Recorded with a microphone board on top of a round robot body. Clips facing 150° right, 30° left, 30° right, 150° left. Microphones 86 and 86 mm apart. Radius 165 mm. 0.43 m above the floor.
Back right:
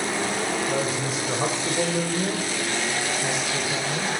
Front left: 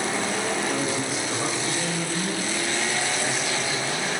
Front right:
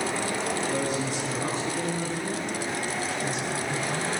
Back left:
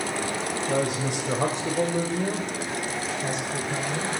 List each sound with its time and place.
0.7 s a woman speaking: 135° left, 2.5 m; by 4.1 s 150° right, 2.5 m